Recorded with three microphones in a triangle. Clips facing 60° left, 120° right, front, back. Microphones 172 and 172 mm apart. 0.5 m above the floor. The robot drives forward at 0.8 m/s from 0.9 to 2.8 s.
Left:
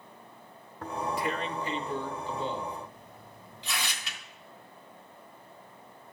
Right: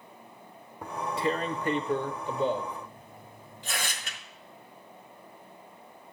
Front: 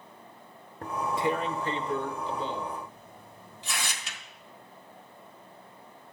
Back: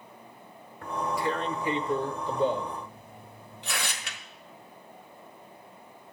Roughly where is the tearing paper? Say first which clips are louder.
Right 2 dB, front 1 dB; ahead right.